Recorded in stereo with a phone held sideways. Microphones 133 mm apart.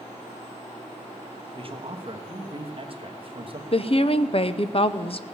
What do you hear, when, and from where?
1.6 s a man speaking: 45° right (ahead or behind), 1.3 m
3.7 s a woman speaking: 45° left (ahead or behind), 0.6 m